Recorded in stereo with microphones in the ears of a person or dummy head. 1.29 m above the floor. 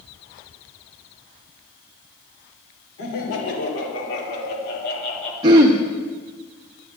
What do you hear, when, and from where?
3.0 s laughter: 75° left (ahead or behind), 4 m; by 5.3 s 45° left (ahead or behind), 2.5 m
5.4 s throat clearing: 25° right (ahead or behind), 0.5 m